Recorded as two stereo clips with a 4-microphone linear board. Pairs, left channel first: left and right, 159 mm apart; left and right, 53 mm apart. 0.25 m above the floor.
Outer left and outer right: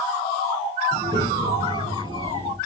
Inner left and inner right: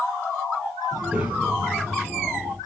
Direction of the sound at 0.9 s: 25° right (ahead or behind).